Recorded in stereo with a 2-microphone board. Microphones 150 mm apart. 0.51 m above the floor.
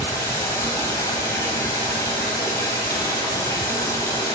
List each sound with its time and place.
0.0 s running water: 20° left (ahead or behind), 2.5 m